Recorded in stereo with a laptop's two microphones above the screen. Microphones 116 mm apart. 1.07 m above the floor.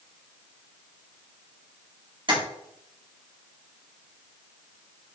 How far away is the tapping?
About 2.0 m.